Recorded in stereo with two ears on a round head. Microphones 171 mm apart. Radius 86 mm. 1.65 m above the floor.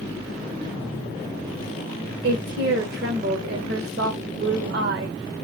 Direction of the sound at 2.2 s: 55° right (ahead or behind).